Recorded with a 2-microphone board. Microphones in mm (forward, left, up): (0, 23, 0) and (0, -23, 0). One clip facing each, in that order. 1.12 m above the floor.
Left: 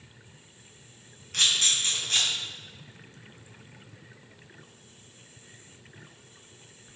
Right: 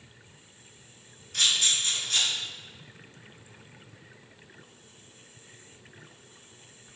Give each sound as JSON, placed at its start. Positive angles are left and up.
{"t": 1.3, "sound": "a camera shutter", "side_deg": 55, "distance_m": 1.4}